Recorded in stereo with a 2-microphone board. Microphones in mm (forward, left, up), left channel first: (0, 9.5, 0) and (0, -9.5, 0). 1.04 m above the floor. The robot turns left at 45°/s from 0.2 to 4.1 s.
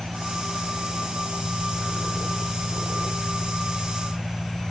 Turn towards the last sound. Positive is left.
turn(degrees=135)